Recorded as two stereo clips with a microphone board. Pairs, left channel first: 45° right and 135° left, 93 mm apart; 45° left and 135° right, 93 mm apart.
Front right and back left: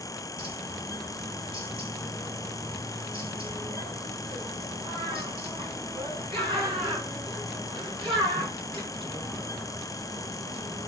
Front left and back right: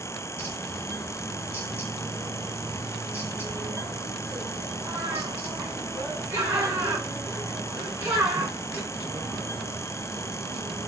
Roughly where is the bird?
Behind.